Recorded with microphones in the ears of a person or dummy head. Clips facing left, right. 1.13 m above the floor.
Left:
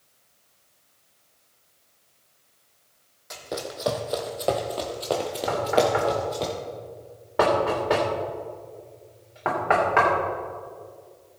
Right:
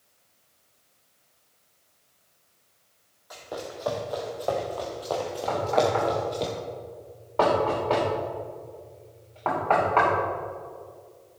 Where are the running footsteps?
40° left (ahead or behind), 2.0 m; by 6.5 s 5° left (ahead or behind), 1.3 m.